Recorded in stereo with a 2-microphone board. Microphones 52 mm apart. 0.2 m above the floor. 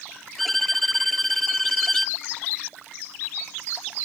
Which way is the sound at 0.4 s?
5° left (ahead or behind).